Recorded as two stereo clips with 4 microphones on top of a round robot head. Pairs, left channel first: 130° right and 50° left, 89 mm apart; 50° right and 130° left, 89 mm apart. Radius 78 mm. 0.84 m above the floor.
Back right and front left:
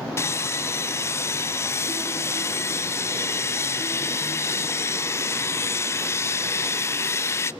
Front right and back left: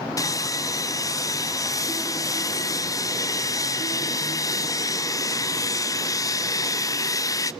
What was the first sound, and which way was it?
Sawing, 80° right.